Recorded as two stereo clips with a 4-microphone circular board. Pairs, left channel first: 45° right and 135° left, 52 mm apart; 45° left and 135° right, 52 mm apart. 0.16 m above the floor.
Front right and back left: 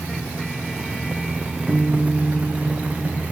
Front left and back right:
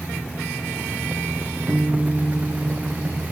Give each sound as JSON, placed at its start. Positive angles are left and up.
{"t": 1.7, "sound": "a guitar", "azimuth_deg": -90, "distance_m": 3.0}